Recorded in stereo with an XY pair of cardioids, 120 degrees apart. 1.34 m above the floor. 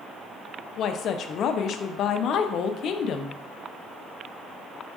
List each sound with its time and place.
0.8 s a woman speaking: 60° left, 0.5 m